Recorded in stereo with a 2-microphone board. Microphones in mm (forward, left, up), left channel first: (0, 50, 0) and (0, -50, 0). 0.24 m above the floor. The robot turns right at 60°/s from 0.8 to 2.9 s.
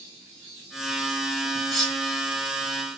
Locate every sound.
1.7 s cutlery clinking: 5° left (ahead or behind), 1.8 m; by 2.0 s 10° right (ahead or behind), 1.8 m